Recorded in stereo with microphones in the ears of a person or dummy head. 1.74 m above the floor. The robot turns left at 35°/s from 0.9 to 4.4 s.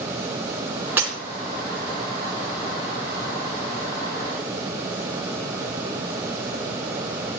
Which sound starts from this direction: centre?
Breaking glass, at 1.0 s.